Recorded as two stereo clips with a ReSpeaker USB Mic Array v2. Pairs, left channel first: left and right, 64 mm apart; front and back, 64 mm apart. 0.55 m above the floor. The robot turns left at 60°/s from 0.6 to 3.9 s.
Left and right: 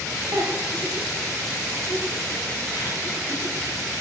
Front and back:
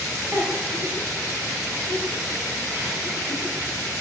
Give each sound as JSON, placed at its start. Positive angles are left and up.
{"t": 0.3, "sound": "a giggle", "azimuth_deg": -120, "distance_m": 4.5}